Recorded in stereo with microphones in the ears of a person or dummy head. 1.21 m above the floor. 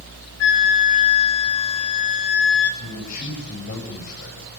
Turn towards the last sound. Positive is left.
turn(degrees=55)  # may be behind; listen again after turning